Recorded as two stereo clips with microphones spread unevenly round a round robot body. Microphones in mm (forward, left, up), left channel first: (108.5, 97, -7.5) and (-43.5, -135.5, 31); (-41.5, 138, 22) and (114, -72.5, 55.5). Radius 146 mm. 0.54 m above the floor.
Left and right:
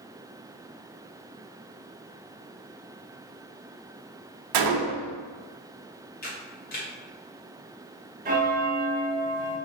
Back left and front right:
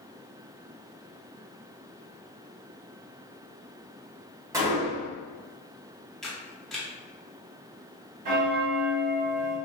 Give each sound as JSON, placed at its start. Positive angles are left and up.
{"t": 4.5, "sound": "a gunshot", "azimuth_deg": -135, "distance_m": 0.5}
{"t": 6.2, "sound": "a camera shutter", "azimuth_deg": 45, "distance_m": 1.1}
{"t": 8.2, "sound": "a bell", "azimuth_deg": -65, "distance_m": 0.8}